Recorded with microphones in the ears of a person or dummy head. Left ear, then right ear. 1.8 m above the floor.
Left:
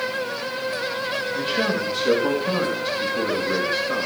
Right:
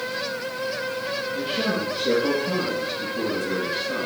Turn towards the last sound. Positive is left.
turn(degrees=45)  # may be behind; listen again after turning